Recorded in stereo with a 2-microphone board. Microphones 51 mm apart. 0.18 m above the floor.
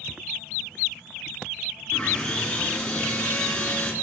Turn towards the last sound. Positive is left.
turn(degrees=15)  # may be behind; listen again after turning